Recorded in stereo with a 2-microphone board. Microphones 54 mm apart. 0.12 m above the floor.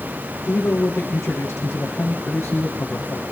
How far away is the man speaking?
About 5.5 m.